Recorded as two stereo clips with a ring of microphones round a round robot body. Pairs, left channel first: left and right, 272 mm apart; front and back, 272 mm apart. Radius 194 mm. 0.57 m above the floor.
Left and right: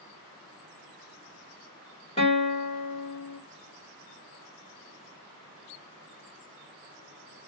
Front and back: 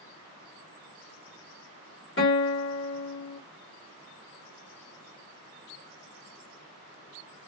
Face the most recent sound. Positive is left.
turn(degrees=30)